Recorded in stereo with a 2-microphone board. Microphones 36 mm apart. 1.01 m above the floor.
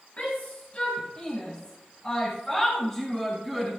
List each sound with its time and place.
0.2 s a shout: 45° left (ahead or behind), 6 m; by 3.7 s centre (ahead or behind), 6.5 m